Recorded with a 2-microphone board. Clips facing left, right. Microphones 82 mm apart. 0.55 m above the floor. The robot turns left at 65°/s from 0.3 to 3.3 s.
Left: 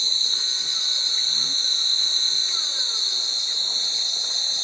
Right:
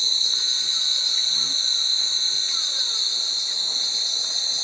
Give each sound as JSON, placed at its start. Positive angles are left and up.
{"t": 0.0, "sound": "an insect", "azimuth_deg": -170, "distance_m": 3.0}